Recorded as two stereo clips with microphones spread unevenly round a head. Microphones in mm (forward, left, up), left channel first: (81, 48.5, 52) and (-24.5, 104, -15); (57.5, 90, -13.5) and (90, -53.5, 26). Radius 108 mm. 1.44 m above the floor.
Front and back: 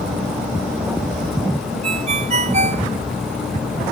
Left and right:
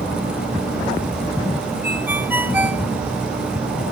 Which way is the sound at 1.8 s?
160° right.